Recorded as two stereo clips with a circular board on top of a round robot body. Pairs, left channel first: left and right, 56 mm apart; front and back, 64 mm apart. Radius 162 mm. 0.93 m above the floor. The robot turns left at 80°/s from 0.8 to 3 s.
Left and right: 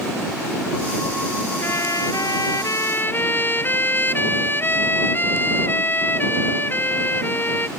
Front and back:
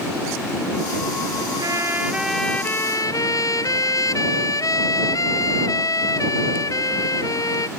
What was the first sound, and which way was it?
A trumpet, 145° left.